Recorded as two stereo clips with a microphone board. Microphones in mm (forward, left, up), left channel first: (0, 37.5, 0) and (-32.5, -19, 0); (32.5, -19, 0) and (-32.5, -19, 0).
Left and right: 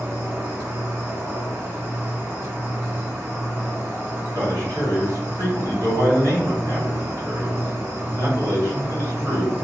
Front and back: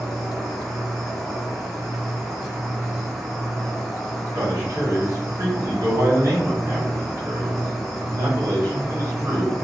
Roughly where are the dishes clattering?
No dishes clattering in this recording.